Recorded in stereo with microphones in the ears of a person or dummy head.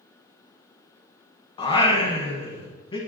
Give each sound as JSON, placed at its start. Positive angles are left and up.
{"t": 1.6, "sound": "singing", "side_deg": 25, "distance_m": 1.5}